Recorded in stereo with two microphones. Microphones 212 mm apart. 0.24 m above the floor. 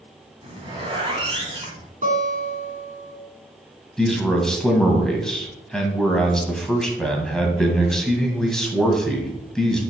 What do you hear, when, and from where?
0.4 s a zipper: 25° right (ahead or behind), 2 m
2.0 s a guitar: 40° right (ahead or behind), 2.5 m
4.0 s a man speaking: 5° left (ahead or behind), 1.6 m